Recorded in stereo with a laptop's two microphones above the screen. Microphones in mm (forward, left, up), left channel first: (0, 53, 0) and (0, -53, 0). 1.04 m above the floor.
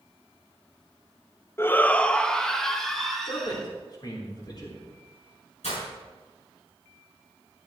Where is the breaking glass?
85° left, 6.5 m.